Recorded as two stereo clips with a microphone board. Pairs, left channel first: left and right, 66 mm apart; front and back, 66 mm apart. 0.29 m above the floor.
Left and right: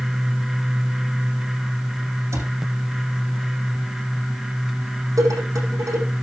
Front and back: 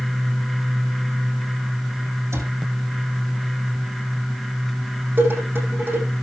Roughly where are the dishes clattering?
Behind right.